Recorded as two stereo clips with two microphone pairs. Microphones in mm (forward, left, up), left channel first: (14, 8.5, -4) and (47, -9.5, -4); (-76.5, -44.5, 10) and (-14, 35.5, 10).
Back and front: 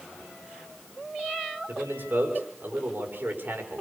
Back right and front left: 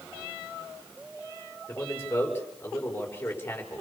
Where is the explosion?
No explosion in this recording.